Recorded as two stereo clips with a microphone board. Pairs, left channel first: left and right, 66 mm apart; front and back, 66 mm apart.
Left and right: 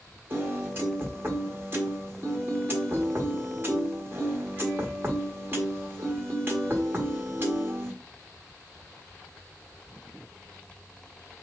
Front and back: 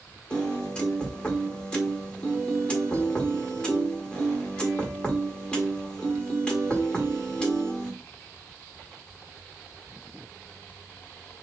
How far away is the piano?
About 1.5 m.